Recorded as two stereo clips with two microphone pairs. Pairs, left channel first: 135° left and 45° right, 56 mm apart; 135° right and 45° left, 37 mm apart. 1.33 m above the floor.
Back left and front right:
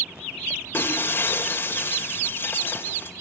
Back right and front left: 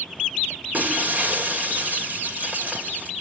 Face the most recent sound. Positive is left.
turn(degrees=85)